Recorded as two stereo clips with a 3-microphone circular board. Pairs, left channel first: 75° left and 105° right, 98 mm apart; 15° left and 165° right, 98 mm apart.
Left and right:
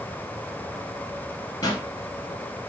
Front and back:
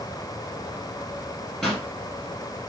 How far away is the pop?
About 1.3 m.